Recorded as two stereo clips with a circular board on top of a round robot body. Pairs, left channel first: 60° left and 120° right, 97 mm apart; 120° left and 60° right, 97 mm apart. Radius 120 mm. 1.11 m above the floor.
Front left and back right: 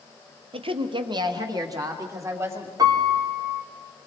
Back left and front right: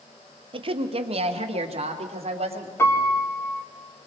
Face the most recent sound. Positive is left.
turn(degrees=-175)